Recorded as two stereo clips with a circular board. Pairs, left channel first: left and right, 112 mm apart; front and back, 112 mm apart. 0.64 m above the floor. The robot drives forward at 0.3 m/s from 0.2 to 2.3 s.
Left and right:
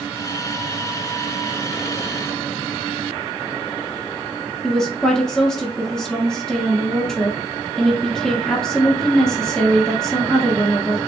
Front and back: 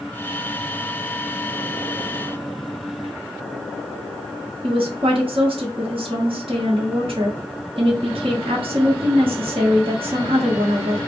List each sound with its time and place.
4.6 s a woman speaking: 170° left, 1.0 m